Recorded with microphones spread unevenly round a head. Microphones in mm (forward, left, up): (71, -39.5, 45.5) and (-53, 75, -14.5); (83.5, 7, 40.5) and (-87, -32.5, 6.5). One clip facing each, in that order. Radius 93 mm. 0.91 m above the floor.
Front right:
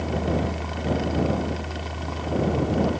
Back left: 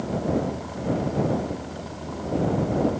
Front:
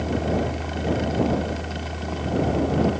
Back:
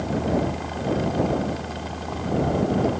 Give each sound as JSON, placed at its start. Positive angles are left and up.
{"t": 0.0, "sound": "a fan", "azimuth_deg": -50}